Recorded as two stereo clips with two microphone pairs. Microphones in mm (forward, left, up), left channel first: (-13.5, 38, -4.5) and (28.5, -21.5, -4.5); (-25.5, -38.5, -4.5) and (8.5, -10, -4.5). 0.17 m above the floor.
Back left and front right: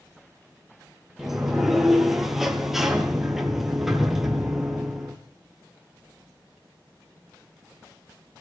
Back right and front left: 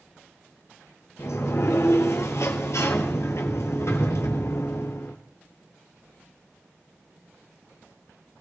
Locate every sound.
1.2 s a sliding door: 140° right, 1.7 m